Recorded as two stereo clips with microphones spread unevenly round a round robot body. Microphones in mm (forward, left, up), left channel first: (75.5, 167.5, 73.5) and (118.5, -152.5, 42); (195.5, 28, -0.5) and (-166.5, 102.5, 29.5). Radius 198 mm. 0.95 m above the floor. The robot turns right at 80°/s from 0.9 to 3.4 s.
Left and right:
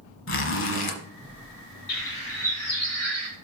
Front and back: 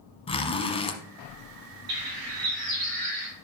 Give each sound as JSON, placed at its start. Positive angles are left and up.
{"t": 0.3, "sound": "a zipper", "azimuth_deg": 65, "distance_m": 1.1}
{"t": 1.9, "sound": "a bird", "azimuth_deg": 125, "distance_m": 2.5}